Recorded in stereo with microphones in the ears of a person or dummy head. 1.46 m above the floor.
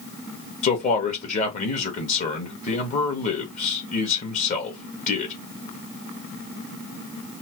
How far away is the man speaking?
About 1.3 m.